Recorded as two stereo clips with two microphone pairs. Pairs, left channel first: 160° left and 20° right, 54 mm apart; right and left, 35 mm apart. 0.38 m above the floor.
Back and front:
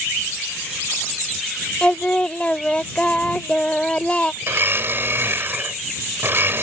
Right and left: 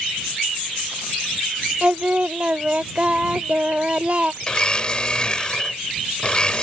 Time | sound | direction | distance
1.8 | singing | 100° left | ?
4.4 | a blender | 35° right | ?